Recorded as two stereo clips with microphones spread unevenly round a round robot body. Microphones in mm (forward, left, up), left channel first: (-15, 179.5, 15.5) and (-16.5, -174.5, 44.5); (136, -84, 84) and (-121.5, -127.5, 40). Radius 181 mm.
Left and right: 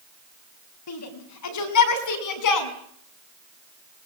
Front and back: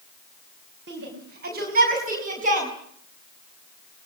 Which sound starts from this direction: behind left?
A shout, at 0.9 s.